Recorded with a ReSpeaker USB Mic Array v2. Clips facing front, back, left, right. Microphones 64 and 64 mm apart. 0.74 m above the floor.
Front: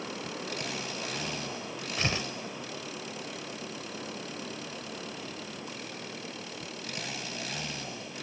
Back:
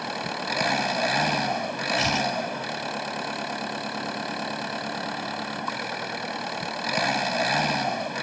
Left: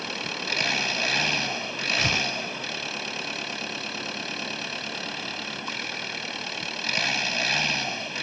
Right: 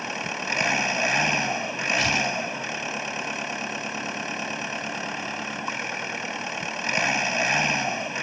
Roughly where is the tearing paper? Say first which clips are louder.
Back 7 dB, right 2 dB; ahead left.